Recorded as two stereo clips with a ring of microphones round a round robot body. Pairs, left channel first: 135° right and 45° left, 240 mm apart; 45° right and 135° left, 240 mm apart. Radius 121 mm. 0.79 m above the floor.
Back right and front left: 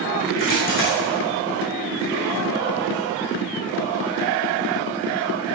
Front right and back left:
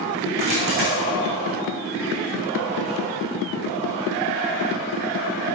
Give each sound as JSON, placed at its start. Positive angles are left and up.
{"t": 0.4, "sound": "a dropped coin", "azimuth_deg": -175, "distance_m": 5.0}